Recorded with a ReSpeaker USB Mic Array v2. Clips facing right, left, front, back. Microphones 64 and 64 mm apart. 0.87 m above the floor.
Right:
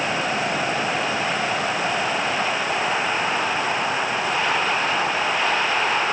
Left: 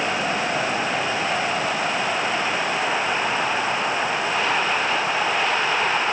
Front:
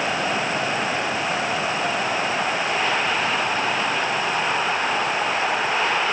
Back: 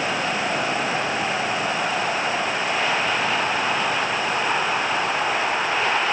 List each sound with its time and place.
Only background noise.